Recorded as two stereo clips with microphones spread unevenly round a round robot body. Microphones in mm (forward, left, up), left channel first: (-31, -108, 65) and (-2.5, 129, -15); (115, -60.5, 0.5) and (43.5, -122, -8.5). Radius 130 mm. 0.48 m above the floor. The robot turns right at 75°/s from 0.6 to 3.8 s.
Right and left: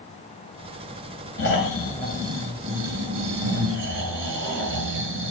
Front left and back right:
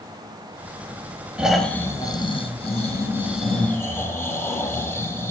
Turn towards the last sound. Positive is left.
turn(degrees=120)